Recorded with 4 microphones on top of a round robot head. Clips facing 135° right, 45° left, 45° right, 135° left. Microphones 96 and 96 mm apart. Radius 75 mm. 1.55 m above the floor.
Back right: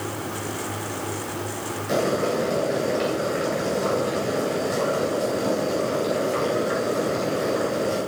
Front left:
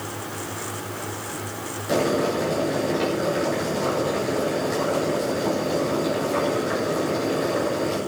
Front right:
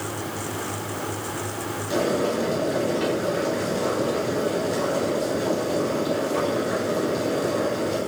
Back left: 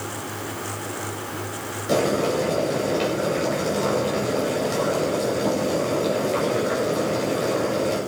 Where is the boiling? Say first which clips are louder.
Front left 1 dB, back left 2 dB; 130° left, 9 m.